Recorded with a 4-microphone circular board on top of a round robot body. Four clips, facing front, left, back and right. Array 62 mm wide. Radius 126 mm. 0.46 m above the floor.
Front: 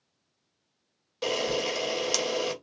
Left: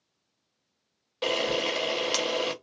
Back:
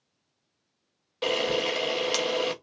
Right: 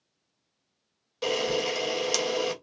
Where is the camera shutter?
130° left, 0.9 m.